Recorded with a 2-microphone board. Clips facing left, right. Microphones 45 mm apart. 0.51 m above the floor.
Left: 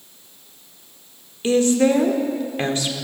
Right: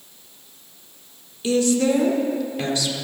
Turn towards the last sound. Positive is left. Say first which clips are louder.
# left 3 dB
turn(degrees=40)  # may be behind; listen again after turning